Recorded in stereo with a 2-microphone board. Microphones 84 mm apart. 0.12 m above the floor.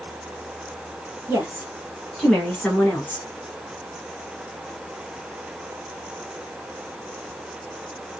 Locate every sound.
1.3 s a woman speaking: 25° right (ahead or behind), 1.7 m; by 3.2 s 25° left (ahead or behind), 1.6 m